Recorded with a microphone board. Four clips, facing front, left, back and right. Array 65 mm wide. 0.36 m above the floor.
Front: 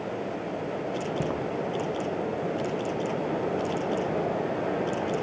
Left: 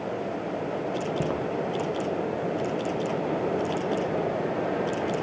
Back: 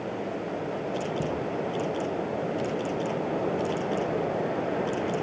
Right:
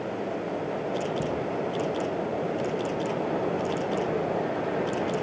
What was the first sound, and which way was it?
Footsteps, 60° left.